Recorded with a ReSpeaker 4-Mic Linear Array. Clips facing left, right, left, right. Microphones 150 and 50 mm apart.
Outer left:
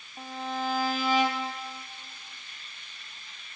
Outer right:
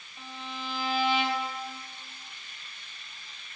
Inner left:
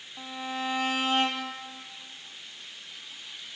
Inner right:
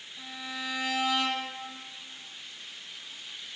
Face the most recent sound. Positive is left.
turn(degrees=45)  # may be behind; listen again after turning